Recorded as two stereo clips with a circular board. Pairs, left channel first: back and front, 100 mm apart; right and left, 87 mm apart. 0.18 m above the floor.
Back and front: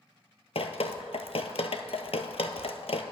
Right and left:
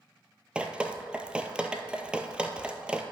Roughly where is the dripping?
Behind.